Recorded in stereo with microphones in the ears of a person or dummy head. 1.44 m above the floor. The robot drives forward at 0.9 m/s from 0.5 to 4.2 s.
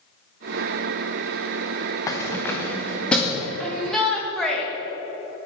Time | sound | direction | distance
2.1 | keys jangling | 25° left (ahead or behind) | 0.9 m
3.6 | a shout | 10° left (ahead or behind) | 1.8 m